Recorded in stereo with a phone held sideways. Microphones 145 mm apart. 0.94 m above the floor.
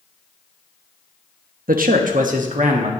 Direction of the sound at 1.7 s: 75° right (ahead or behind).